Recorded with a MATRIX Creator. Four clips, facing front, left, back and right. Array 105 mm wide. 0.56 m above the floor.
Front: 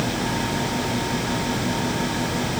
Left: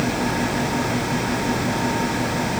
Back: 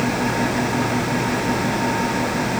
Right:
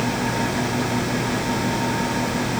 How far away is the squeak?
I don't hear a squeak.